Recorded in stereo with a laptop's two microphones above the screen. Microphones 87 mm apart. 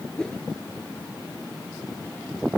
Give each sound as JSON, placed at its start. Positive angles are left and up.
{"t": 0.2, "sound": "a whoosh", "side_deg": 10}